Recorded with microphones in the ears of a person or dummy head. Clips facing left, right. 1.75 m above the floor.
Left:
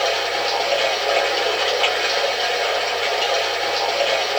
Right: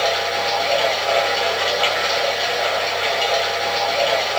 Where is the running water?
10° left (ahead or behind), 2.5 m.